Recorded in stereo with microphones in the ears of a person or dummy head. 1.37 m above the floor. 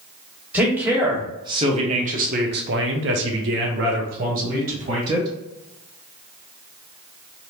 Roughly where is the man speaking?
Centre.